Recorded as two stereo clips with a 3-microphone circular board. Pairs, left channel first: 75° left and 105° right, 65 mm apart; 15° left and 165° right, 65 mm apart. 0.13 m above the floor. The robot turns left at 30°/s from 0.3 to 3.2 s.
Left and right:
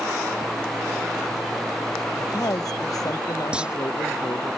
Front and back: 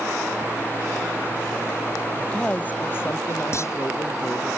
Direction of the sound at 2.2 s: 90° left.